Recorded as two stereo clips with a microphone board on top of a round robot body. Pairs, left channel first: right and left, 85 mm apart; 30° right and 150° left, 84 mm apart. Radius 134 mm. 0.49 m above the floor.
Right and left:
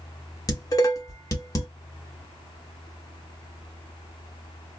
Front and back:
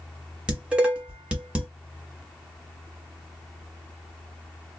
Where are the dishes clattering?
135° right, 1.2 m.